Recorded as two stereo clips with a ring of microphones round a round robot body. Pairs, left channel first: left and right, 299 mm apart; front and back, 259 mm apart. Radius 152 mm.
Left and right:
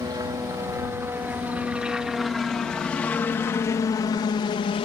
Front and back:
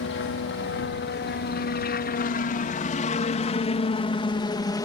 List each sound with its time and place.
0.0 s a helicopter: 15° right; by 4.8 s 55° left